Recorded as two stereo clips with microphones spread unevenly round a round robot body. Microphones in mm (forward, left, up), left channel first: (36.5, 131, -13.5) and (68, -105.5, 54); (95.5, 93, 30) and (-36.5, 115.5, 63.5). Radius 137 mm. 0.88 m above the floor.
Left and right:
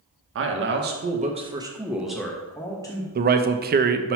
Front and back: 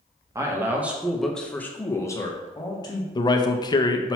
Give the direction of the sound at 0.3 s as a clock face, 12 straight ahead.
4 o'clock.